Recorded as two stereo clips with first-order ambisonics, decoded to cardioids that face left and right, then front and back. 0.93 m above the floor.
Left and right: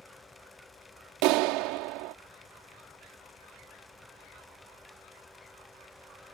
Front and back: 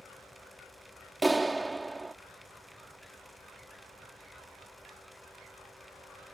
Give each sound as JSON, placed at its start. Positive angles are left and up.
{"t": 1.2, "sound": "a clap", "azimuth_deg": -100}